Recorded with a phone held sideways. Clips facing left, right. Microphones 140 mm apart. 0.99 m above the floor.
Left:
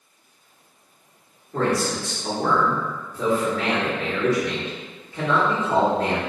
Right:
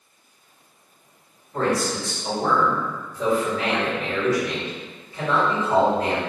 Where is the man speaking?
65° left (ahead or behind), 1.6 m.